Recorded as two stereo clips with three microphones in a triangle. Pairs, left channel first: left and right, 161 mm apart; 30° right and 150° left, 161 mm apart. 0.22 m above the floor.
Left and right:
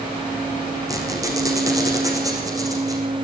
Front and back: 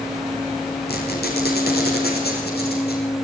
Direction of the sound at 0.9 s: 20° right.